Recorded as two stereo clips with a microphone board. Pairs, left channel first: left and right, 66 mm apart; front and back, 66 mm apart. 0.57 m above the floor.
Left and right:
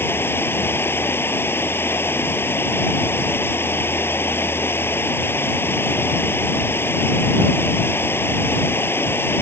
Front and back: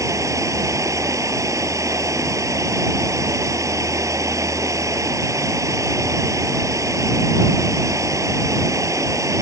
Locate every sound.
0.0 s running water: 145° left